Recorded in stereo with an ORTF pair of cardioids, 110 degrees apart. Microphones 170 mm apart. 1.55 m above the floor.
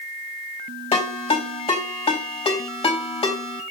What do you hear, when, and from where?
0.9 s a ringtone: 35° left, 3.5 m